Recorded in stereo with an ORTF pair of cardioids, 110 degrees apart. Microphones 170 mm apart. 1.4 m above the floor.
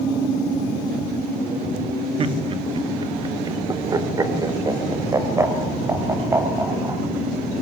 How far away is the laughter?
About 2.5 m.